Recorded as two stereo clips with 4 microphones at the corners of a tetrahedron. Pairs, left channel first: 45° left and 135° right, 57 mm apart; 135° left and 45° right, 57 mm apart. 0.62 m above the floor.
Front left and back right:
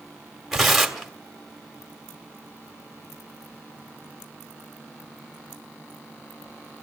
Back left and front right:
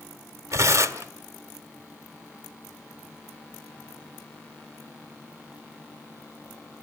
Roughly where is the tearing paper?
Ahead right.